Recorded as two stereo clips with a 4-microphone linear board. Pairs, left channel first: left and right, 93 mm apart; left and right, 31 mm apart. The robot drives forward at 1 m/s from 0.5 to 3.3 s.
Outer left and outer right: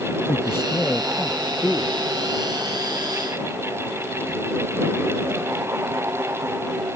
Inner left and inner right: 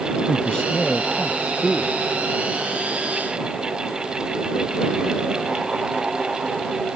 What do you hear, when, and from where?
0.3 s a man speaking: 30° left (ahead or behind); by 1.9 s 20° left (ahead or behind)